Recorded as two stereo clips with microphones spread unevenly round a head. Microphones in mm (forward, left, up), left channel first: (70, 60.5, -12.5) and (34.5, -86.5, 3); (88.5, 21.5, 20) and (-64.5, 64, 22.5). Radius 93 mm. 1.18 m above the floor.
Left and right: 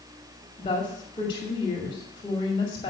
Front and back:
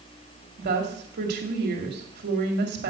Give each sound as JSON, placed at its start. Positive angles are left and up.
{"t": 0.6, "sound": "a woman speaking", "azimuth_deg": 145, "distance_m": 2.5}